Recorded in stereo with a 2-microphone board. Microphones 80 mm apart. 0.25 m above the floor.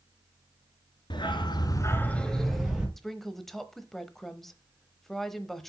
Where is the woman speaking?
5° left (ahead or behind), 0.9 m.